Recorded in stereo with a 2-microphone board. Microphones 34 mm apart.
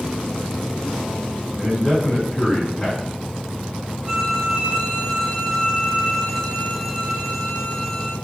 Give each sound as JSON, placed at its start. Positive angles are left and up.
{"t": 1.6, "sound": "a man speaking", "side_deg": 25, "distance_m": 1.8}
{"t": 4.0, "sound": "a violin", "side_deg": -25, "distance_m": 1.7}